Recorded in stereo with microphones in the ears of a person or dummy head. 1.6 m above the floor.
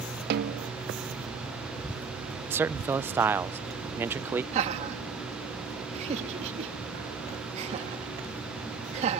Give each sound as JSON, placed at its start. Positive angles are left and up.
{"t": 0.3, "sound": "a snare drum", "side_deg": -50}
{"t": 2.5, "sound": "a man speaking", "side_deg": -10}
{"t": 4.5, "sound": "laughter", "side_deg": -35}